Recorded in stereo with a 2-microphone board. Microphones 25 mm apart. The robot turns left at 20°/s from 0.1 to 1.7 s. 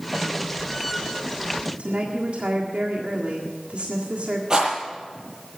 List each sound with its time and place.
1.8 s a woman speaking: 60° right (ahead or behind), 1.7 m
4.5 s a rattle: 30° right (ahead or behind), 8.5 m